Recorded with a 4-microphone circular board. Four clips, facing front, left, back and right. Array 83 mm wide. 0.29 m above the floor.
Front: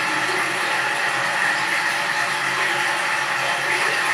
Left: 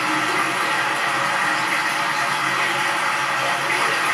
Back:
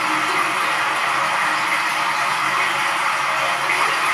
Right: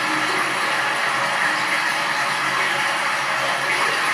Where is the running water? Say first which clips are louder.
Left 1 dB, back 3 dB; straight behind, 2 m.